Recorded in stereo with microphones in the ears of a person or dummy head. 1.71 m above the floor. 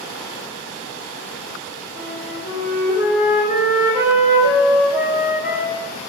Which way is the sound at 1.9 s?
30° right (ahead or behind).